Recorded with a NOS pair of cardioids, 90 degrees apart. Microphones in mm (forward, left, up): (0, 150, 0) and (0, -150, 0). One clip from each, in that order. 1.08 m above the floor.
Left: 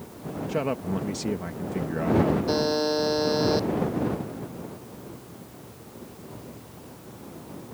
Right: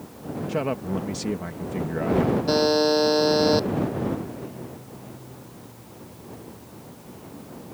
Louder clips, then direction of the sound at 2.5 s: Right 5 dB; 35° right.